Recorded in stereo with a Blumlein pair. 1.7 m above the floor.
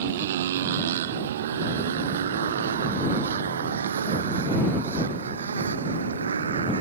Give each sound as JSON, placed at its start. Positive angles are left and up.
{"t": 0.0, "sound": "a motorcycle", "azimuth_deg": -55}